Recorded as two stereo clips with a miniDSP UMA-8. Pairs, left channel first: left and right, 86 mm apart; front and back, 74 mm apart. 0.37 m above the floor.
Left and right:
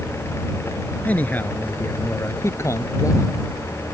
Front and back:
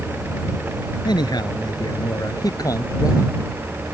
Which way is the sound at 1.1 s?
20° left.